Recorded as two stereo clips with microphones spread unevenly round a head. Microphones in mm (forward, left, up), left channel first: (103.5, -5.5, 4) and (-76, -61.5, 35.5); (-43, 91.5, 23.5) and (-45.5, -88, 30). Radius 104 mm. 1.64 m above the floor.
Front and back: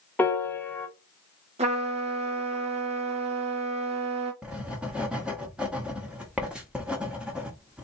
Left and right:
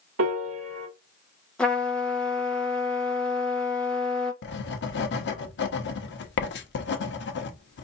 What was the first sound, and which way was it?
A piano, 65° right.